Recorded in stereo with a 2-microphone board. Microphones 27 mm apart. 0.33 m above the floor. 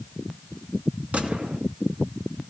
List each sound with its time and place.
1.1 s a gunshot: 65° right (ahead or behind), 2.5 m